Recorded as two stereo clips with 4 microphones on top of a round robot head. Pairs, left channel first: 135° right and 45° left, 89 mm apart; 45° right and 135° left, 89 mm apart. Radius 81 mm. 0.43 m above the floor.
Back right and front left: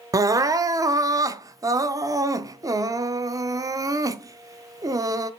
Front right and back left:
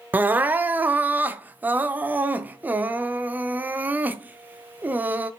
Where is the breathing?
No breathing in this recording.